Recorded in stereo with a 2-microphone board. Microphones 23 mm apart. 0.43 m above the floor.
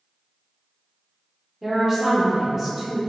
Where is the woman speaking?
15° right (ahead or behind), 0.8 m.